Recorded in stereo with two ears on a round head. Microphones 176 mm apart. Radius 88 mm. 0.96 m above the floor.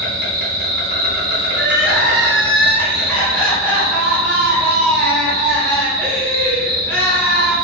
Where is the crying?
10° left (ahead or behind), 1.1 m.